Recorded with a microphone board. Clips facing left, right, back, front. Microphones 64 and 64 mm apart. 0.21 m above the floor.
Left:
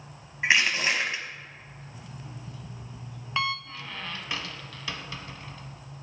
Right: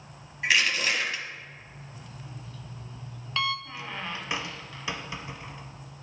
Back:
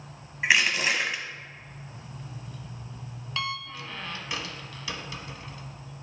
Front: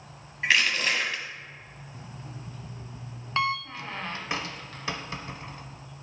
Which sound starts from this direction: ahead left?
An alarm clock, at 1.9 s.